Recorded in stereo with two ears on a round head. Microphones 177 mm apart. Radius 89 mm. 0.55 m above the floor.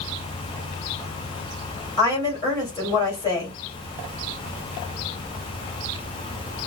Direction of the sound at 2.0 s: 20° left (ahead or behind).